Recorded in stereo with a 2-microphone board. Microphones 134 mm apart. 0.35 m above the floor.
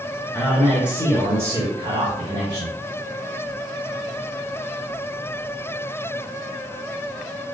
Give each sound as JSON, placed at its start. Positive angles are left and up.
{"t": 0.3, "sound": "a man speaking", "side_deg": 0, "distance_m": 1.2}